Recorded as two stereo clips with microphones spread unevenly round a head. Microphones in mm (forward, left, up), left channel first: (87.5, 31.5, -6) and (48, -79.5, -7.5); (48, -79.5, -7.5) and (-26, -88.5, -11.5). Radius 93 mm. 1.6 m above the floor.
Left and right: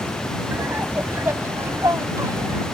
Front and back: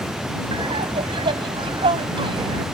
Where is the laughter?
170° left; by 2.6 s 175° left.